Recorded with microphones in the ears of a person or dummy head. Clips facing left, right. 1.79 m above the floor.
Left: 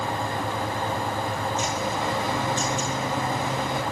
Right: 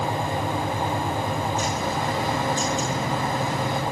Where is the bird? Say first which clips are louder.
Right 1 dB; 20° left (ahead or behind), 6 m.